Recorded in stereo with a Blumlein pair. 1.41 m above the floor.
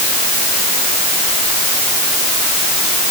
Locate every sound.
Only background noise.